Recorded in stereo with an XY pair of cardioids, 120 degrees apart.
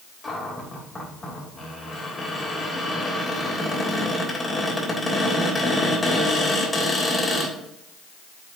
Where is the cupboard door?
25° left, 3 m.